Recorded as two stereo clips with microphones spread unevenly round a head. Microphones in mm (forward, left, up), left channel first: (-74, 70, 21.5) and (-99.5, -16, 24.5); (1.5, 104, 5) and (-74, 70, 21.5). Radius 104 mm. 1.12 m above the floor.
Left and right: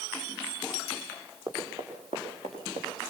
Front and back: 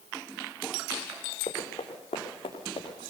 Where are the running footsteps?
30° right, 4 m; by 3.0 s 55° right, 5.5 m.